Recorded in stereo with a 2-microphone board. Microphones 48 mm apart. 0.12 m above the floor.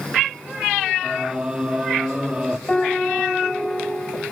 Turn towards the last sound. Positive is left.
turn(degrees=20)  # may be behind; listen again after turning